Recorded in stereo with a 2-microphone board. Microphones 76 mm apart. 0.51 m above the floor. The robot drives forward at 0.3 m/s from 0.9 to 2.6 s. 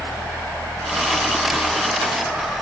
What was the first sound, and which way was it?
Only background noise.